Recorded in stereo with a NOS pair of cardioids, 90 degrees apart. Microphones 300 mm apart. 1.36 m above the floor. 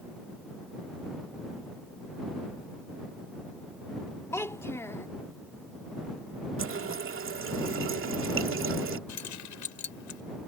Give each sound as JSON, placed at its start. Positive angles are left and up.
{"t": 4.3, "sound": "a child speaking", "azimuth_deg": 10}
{"t": 6.6, "sound": "a running tap", "azimuth_deg": -45}
{"t": 9.1, "sound": "keys jangling", "azimuth_deg": 65}